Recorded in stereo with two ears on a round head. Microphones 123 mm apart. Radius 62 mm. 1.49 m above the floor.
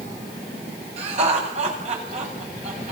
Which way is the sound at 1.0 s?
50° right (ahead or behind).